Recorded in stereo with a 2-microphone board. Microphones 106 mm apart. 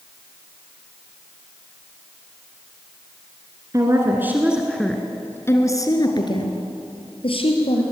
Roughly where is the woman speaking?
Right.